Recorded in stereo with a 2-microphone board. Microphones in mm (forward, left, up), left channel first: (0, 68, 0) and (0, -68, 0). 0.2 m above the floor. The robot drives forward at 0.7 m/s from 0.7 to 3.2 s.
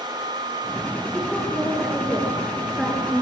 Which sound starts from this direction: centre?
A woman speaking, at 1.1 s.